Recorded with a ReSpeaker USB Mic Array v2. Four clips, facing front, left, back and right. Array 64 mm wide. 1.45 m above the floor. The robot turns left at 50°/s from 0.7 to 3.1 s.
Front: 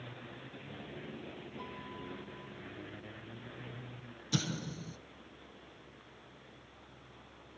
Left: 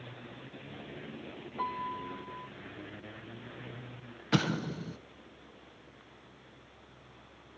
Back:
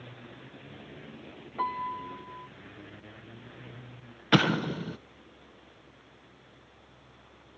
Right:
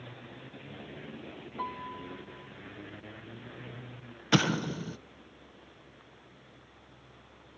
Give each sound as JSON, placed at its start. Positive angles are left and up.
{"t": 1.6, "sound": "a piano", "azimuth_deg": 180, "distance_m": 1.6}
{"t": 4.3, "sound": "an explosion", "azimuth_deg": -165, "distance_m": 0.7}